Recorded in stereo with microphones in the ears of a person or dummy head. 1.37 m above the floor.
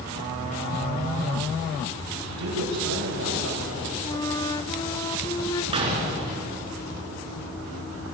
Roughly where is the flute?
Left.